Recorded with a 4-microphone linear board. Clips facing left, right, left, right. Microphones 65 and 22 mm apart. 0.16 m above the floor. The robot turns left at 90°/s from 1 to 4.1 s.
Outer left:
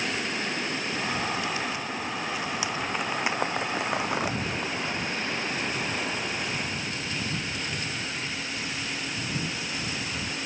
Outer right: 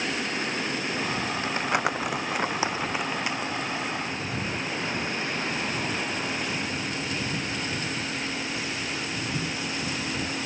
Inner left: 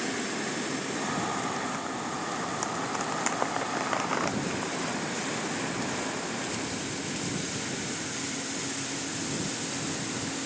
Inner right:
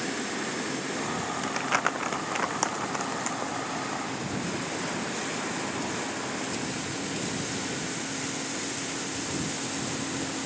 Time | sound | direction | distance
1.4 | crumpling | 35° right (ahead or behind) | ?